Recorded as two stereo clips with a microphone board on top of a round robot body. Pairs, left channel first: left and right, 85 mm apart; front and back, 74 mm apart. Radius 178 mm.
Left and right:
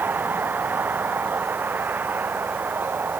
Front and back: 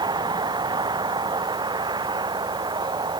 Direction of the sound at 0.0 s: 160° right.